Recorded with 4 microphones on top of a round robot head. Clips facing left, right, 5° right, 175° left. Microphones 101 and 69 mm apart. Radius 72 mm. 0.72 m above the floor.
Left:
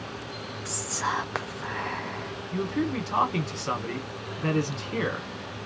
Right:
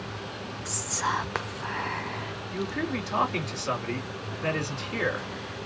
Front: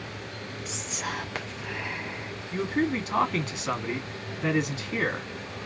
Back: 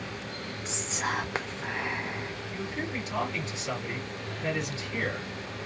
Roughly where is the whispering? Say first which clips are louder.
Even, back 3 dB; behind.